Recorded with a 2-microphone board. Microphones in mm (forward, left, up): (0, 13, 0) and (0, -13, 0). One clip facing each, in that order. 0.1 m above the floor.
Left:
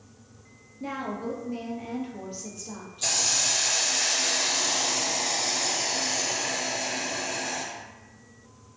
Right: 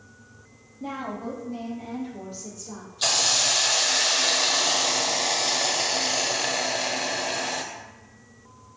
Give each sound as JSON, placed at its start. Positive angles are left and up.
{"t": 0.8, "sound": "a woman speaking", "side_deg": 25, "distance_m": 1.4}
{"t": 3.0, "sound": "a hiss", "side_deg": -70, "distance_m": 0.6}